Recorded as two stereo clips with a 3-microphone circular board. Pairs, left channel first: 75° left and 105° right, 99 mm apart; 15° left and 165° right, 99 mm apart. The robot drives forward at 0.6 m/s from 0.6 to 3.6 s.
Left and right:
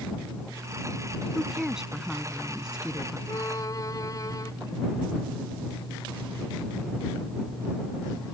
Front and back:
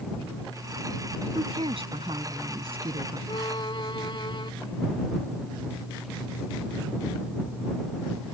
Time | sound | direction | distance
1.4 | a woman speaking | 170° left | ?
3.3 | a violin | 30° left | ?